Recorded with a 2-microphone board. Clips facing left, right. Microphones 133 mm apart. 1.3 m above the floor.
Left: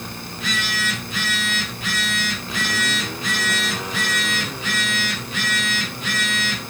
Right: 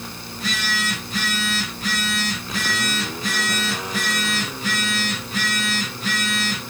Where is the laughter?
No laughter in this recording.